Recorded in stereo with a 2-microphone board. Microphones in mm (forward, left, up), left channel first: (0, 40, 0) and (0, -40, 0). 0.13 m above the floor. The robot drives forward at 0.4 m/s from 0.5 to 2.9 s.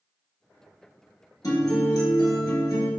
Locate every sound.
1.4 s a guitar: 50° left (ahead or behind), 1.5 m; by 2.9 s 55° left (ahead or behind), 1.5 m